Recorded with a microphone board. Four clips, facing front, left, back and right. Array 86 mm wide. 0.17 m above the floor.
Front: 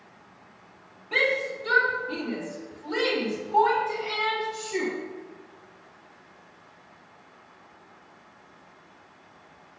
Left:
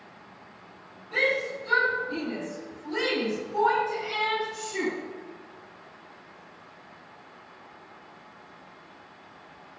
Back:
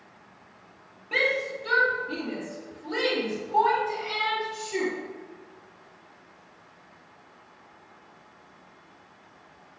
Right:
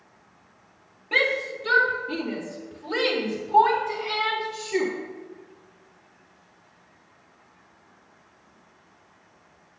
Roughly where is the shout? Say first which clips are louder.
Right 2 dB, front 1 dB; right.